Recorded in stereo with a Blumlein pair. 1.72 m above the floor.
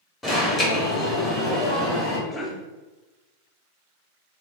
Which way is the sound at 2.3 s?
10° left.